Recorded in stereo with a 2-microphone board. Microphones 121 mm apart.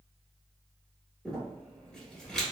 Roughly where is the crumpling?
Centre.